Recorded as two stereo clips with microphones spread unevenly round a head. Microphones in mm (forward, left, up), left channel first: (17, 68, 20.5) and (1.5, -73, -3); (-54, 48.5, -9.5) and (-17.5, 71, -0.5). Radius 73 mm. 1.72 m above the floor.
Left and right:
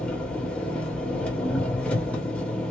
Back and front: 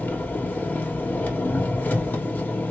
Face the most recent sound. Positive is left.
turn(degrees=160)